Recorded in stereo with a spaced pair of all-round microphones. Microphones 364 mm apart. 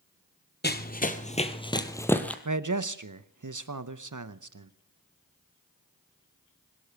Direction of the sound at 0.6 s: 25° left (ahead or behind).